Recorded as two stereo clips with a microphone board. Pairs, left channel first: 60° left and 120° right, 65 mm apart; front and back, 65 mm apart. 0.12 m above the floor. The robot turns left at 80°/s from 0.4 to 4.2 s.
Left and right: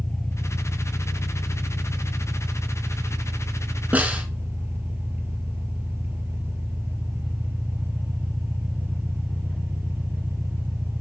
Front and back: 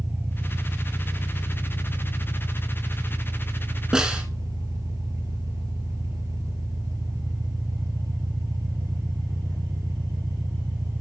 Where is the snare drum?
115° right, 1.7 m; by 4.3 s 140° right, 1.7 m.